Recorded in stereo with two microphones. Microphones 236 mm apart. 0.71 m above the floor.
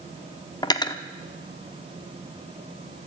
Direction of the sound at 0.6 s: 15° left (ahead or behind).